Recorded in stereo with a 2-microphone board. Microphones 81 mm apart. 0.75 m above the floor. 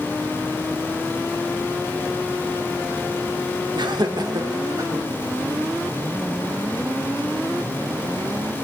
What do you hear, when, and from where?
3.8 s laughter: 65° right (ahead or behind), 1.6 m; by 5.1 s 40° right (ahead or behind), 2.5 m